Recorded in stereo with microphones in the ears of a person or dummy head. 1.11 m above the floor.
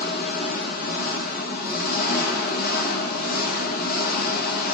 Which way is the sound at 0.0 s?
60° left (ahead or behind).